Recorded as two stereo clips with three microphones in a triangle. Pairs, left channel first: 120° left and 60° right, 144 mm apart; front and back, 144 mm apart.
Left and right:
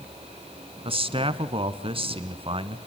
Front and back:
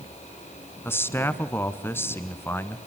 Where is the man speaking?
65° right, 1.4 m.